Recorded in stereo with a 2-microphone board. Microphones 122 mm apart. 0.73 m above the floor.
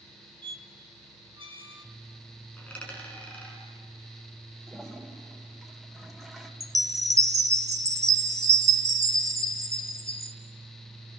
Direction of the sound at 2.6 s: 10° left (ahead or behind).